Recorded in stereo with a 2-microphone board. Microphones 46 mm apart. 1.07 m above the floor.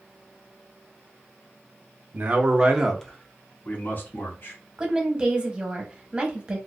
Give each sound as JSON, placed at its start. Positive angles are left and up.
{"t": 2.1, "sound": "a man speaking", "side_deg": -45, "distance_m": 0.7}
{"t": 4.8, "sound": "a woman speaking", "side_deg": -20, "distance_m": 0.8}